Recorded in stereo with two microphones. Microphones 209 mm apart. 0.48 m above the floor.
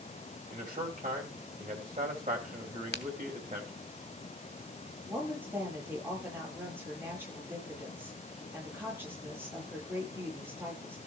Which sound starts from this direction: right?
A man speaking, at 0.5 s.